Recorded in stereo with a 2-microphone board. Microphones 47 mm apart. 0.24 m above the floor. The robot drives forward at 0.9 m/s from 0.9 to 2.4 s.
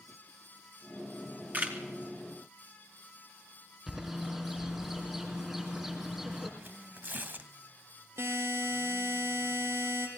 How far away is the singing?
No singing in this recording.